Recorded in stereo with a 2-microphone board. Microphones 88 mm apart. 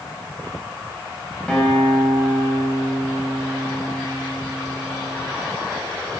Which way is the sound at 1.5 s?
10° left (ahead or behind).